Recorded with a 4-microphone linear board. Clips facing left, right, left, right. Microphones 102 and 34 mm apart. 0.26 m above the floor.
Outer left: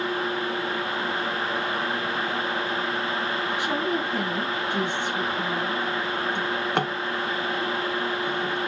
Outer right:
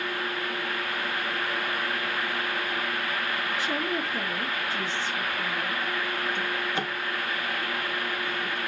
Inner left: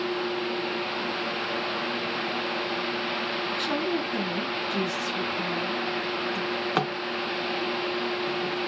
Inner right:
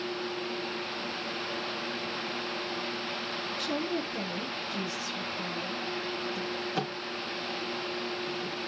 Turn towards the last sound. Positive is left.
turn(degrees=65)  # may be behind; listen again after turning